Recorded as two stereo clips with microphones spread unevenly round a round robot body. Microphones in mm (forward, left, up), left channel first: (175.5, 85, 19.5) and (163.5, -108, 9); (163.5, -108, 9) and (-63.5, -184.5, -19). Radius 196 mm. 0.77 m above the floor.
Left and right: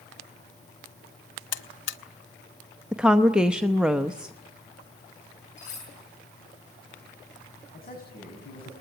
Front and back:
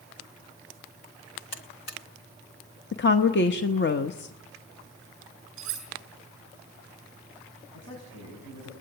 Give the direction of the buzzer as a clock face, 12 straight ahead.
9 o'clock.